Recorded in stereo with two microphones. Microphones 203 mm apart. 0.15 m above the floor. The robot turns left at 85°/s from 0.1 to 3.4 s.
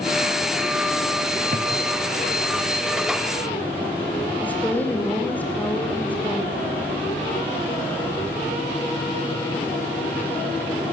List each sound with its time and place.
1.5 s a thud: 40° right (ahead or behind), 2.5 m; by 1.7 s 25° right (ahead or behind), 2.5 m
4.4 s a woman speaking: 10° left (ahead or behind), 4 m